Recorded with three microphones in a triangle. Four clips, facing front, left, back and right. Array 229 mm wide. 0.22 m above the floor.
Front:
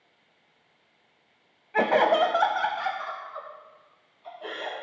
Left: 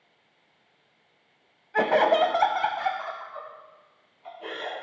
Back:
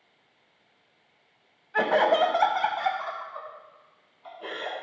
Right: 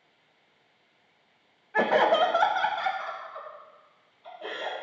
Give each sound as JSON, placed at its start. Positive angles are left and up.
{"t": 1.7, "sound": "laughter", "azimuth_deg": 20, "distance_m": 1.0}